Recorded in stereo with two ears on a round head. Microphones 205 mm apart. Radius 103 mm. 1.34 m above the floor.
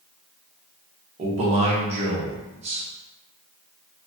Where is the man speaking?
30° right (ahead or behind), 0.9 m.